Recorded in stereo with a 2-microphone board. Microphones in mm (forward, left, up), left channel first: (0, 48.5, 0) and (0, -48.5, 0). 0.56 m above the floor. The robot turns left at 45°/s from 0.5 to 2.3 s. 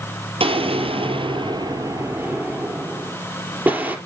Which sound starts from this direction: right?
An explosion, at 0.4 s.